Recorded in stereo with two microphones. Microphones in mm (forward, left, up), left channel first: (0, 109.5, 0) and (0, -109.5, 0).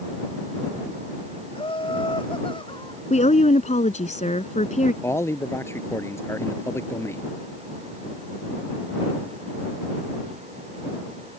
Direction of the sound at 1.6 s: 25° left (ahead or behind).